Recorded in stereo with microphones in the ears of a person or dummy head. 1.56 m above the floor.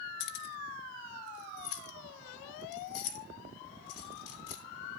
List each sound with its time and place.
0.2 s keys jangling: 50° left (ahead or behind), 1.1 m; by 4.6 s 75° left (ahead or behind), 3 m